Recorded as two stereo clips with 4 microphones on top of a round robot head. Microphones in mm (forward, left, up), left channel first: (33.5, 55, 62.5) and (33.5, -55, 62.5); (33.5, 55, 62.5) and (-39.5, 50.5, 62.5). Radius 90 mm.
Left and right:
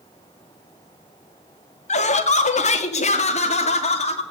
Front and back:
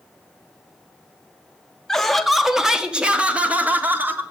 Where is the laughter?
90° left, 1.7 m; by 4.2 s 120° left, 2.5 m.